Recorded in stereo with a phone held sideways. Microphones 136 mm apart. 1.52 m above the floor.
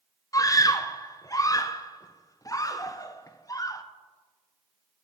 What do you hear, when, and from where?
0.3 s a scream: 25° left (ahead or behind), 0.8 m